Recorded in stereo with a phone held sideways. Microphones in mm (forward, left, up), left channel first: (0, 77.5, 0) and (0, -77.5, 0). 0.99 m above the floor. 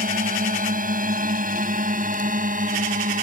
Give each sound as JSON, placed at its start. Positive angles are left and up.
{"t": 0.0, "sound": "a drone", "side_deg": -60}